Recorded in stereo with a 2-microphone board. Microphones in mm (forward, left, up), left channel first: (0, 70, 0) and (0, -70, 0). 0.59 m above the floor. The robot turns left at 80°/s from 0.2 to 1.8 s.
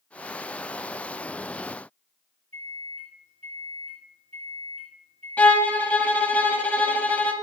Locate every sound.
2.5 s a microwave: 45° right (ahead or behind), 2.5 m
5.4 s a violin: 10° left (ahead or behind), 0.6 m